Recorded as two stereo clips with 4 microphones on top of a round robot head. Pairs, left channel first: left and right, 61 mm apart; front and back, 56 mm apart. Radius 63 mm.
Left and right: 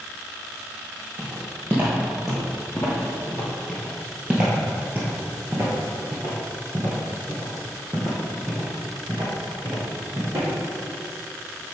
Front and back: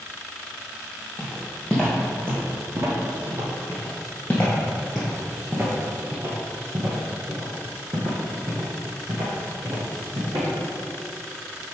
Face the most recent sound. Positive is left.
turn(degrees=-150)